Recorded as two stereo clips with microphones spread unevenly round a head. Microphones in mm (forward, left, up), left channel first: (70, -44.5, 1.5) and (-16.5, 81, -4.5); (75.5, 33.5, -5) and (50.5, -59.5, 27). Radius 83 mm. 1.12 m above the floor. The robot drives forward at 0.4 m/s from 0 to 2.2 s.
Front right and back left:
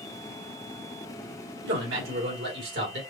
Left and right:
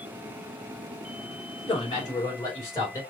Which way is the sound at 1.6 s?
135° left.